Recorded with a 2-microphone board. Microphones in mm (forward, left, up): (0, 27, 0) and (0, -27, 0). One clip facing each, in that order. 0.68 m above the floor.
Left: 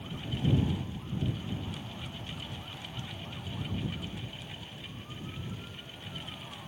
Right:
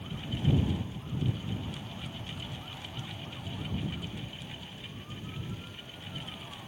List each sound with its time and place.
Only background noise.